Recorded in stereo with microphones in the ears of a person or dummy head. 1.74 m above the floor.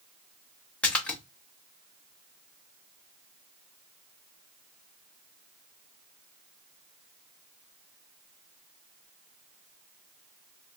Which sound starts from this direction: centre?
A splash, at 0.8 s.